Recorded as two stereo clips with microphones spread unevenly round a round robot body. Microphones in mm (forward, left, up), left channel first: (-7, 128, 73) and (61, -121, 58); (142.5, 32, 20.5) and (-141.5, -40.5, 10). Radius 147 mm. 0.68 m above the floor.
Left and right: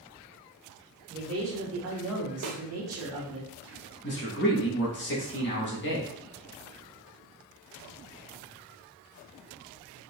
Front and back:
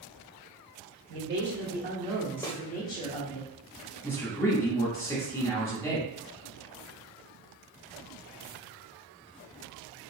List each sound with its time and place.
1.1 s a man speaking: 120° right, 1.7 m; by 3.4 s 40° right, 1.2 m
2.4 s a snare drum: 60° right, 0.5 m
4.0 s a man speaking: 95° left, 1.3 m